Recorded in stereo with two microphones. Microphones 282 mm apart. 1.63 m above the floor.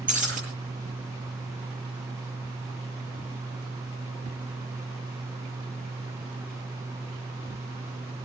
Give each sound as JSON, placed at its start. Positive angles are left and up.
{"t": 0.1, "sound": "breaking glass", "side_deg": -30, "distance_m": 9.0}